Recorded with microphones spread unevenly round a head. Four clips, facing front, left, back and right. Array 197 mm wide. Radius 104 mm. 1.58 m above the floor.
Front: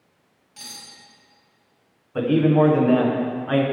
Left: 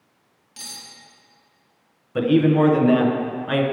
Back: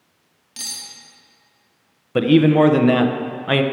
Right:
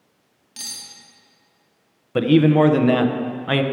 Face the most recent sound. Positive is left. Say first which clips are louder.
# right 2 dB, back 4 dB
turn(degrees=-175)